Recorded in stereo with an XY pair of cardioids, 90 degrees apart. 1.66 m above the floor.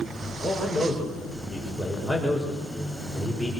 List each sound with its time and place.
0.4 s a man speaking: 5° right, 9 m